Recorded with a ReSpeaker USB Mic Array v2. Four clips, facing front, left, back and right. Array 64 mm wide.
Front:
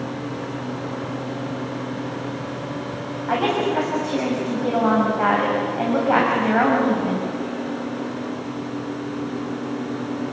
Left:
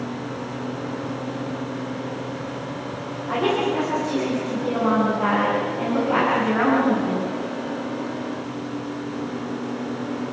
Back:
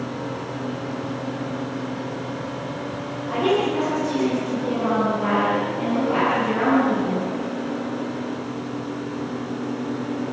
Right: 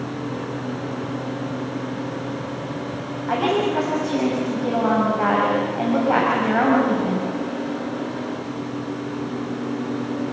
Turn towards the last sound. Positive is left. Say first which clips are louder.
# right 1 dB, even
turn(degrees=-35)